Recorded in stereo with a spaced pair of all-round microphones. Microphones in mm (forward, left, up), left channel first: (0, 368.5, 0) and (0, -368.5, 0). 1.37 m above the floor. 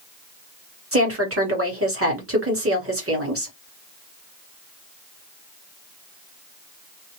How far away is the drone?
I don't hear a drone.